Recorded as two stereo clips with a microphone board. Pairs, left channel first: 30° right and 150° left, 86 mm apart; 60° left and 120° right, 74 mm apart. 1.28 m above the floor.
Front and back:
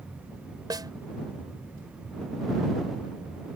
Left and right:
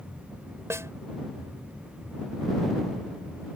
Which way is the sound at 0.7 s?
170° right.